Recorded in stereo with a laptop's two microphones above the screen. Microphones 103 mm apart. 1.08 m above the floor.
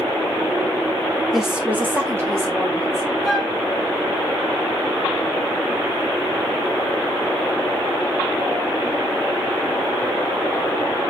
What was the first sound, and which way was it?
A woman speaking, centre (ahead or behind).